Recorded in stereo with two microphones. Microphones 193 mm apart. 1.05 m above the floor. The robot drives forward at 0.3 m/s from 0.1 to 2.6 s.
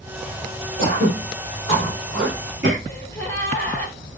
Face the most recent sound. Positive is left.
turn(degrees=10)  # may be behind; listen again after turning